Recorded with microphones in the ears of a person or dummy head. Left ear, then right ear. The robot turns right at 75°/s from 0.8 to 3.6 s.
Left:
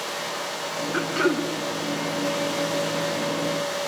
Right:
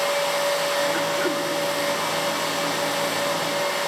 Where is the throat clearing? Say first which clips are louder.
Right 1 dB; 10° left, 1.2 m; by 1.5 s 50° left, 1.2 m.